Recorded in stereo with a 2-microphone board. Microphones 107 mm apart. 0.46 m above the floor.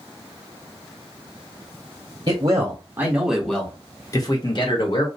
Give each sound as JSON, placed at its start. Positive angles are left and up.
{"t": 2.3, "sound": "a man speaking", "side_deg": -35, "distance_m": 1.1}